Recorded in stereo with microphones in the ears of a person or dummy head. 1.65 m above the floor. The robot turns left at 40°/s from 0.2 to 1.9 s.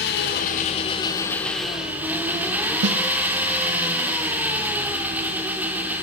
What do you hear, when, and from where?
0.0 s an engine running: 55° left, 3 m; by 6.0 s 10° right, 3 m
2.8 s a snare drum: 80° right, 1.6 m